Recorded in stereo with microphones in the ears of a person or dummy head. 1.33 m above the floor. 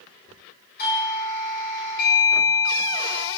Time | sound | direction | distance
0.8 | a doorbell | 55° left (ahead or behind) | 4.5 m